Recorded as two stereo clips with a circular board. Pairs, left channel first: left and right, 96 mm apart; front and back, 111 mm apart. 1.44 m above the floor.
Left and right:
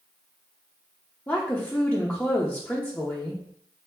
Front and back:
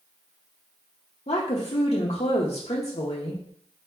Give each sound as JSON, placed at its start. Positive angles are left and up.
{"t": 1.3, "sound": "a woman speaking", "azimuth_deg": 20, "distance_m": 0.7}